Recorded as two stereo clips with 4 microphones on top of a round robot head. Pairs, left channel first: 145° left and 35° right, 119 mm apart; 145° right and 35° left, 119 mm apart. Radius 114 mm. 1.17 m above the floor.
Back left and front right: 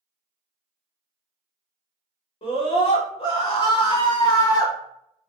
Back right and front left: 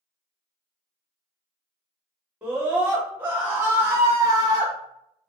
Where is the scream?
115° left, 2.0 m; by 5.3 s 65° left, 0.6 m.